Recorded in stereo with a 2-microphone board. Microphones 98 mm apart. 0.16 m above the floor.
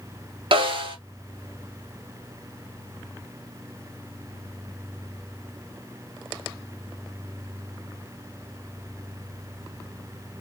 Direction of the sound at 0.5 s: 60° right (ahead or behind).